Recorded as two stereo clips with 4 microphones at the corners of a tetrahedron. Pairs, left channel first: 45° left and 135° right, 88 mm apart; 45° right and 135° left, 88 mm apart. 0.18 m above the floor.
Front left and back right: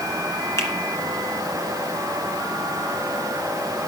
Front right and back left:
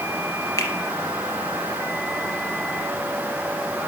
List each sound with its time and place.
0.6 s a finger snap: straight ahead, 2.0 m